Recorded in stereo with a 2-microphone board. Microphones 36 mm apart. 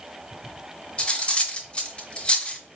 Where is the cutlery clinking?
30° left (ahead or behind), 0.8 m.